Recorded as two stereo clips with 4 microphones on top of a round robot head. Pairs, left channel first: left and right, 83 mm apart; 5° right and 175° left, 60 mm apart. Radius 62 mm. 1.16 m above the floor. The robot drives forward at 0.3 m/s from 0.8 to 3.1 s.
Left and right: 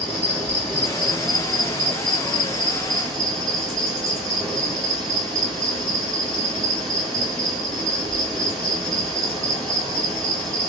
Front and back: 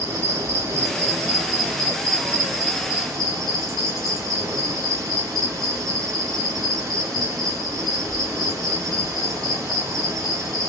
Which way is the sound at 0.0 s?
175° left.